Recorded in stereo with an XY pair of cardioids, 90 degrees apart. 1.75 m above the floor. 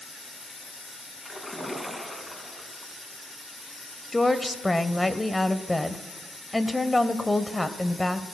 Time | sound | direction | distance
1.2 | a splash | 10° left | 2.5 m
4.1 | a woman speaking | 15° left | 1.1 m